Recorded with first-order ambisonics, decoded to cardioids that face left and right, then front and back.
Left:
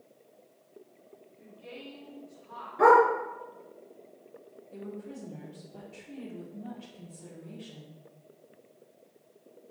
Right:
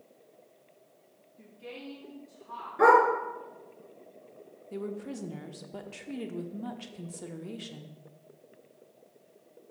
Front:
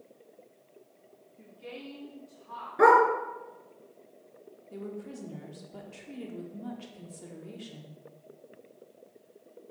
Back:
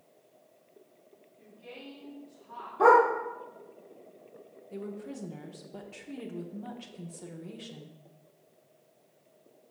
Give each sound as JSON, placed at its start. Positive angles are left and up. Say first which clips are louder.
{"t": 1.4, "sound": "a woman speaking", "louder": "right 2 dB, front 3 dB", "azimuth_deg": -40, "distance_m": 1.2}
{"t": 2.8, "sound": "a dog barking", "louder": "left 1 dB, even", "azimuth_deg": -10, "distance_m": 2.5}
{"t": 4.7, "sound": "a woman speaking", "louder": "right 5 dB, back 1 dB", "azimuth_deg": -100, "distance_m": 0.8}